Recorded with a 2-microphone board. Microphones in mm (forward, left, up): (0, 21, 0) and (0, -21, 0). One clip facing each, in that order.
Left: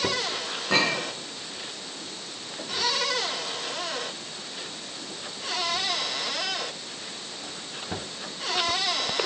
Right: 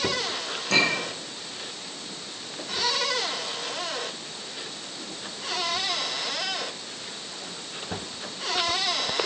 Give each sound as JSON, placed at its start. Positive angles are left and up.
{"t": 0.7, "sound": "a clink", "side_deg": 15, "distance_m": 8.0}